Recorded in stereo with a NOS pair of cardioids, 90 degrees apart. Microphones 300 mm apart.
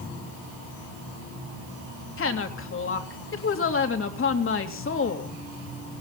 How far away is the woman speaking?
About 3 m.